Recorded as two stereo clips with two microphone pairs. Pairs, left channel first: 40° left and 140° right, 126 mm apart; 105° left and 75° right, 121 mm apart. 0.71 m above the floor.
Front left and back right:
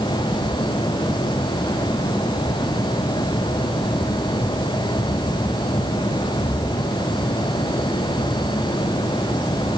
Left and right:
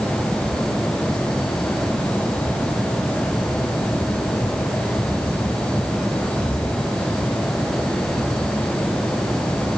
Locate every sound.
Only background noise.